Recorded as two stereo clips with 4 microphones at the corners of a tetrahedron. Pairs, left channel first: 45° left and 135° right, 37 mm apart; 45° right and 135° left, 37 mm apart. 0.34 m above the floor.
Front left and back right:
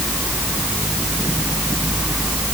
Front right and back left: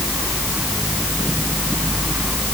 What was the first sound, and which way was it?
Only background noise.